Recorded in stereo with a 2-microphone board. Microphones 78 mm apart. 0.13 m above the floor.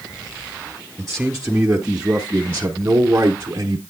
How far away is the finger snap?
No finger snap in this recording.